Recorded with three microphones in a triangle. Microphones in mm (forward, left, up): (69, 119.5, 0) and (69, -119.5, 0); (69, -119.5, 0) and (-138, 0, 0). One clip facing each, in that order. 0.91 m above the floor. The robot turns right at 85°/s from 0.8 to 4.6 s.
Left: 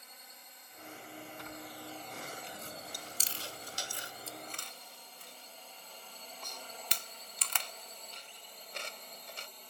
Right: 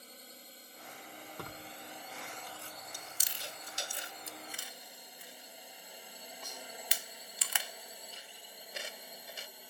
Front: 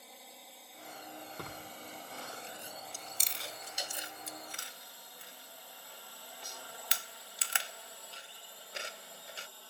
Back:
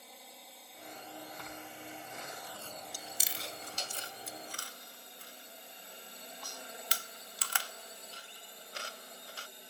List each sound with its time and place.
0.0 s a drone: 120° right; by 9.7 s 160° right
1.4 s tearing paper: 65° right; by 3.9 s 155° left
2.9 s chewing: 160° right; by 9.5 s 20° right